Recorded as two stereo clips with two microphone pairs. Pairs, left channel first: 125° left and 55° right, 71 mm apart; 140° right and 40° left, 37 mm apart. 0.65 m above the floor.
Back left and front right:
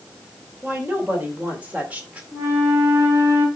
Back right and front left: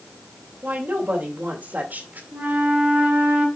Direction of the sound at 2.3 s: 5° left.